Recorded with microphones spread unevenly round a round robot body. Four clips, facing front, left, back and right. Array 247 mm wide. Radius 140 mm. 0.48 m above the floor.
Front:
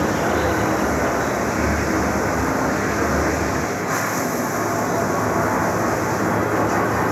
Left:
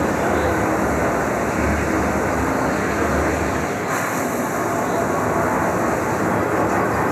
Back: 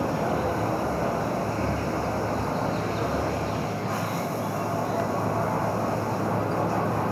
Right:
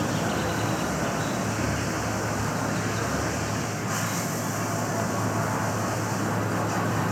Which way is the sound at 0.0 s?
40° left.